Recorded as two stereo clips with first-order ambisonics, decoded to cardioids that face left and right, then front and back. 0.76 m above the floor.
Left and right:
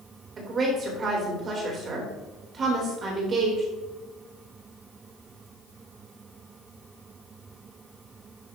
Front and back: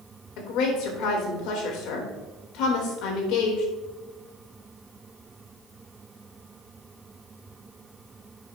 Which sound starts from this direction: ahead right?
A woman speaking, at 0.4 s.